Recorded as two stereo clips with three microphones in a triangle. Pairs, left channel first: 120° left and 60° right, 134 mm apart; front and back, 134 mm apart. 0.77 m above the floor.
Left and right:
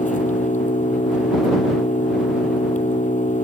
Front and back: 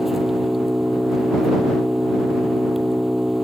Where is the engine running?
90° left.